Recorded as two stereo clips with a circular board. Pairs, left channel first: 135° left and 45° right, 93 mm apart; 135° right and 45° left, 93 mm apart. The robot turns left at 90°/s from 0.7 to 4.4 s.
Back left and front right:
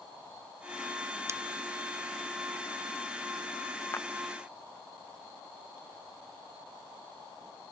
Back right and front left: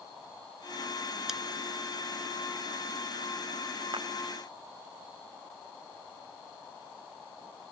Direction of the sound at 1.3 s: 35° right.